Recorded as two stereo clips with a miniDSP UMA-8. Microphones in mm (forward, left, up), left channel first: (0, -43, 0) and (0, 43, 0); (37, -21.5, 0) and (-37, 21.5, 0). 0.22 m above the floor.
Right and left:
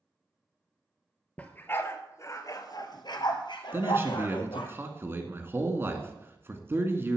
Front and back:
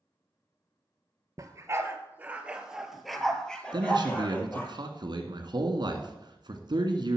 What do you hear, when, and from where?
1.4 s a dog barking: 160° right, 1.4 m; by 4.7 s 95° right, 2 m
3.7 s a man speaking: 145° left, 1.9 m